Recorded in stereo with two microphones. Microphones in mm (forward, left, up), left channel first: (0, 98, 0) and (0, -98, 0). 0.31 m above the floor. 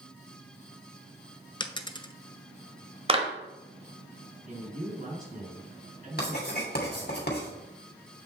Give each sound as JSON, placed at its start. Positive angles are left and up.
{"t": 1.6, "sound": "a dropped coin", "side_deg": 25, "distance_m": 0.6}
{"t": 3.1, "sound": "a clap", "side_deg": -30, "distance_m": 1.0}
{"t": 4.5, "sound": "a man speaking", "side_deg": -45, "distance_m": 4.0}
{"t": 6.2, "sound": "writing", "side_deg": 55, "distance_m": 2.5}